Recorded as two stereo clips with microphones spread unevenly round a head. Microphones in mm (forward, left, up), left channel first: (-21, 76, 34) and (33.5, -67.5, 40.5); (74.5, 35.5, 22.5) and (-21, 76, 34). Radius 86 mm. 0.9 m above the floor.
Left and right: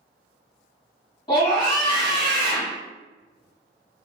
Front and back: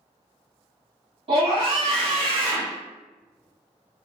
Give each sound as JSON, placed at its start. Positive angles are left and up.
{"t": 1.3, "sound": "a scream", "azimuth_deg": 165, "distance_m": 1.6}